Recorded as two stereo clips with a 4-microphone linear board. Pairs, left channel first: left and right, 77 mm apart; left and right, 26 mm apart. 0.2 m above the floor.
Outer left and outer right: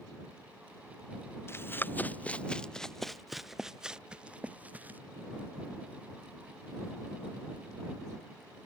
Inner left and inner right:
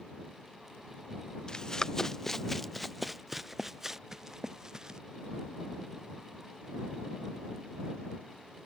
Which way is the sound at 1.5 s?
30° left (ahead or behind).